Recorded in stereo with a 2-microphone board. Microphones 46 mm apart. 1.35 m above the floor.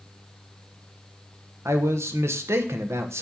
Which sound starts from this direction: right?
A man speaking, at 1.6 s.